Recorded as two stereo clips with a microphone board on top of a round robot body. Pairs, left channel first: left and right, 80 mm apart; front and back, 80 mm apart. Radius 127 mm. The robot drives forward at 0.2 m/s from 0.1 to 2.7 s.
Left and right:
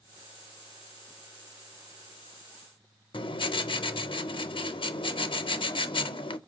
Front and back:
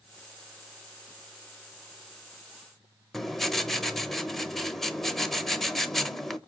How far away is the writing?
About 0.7 m.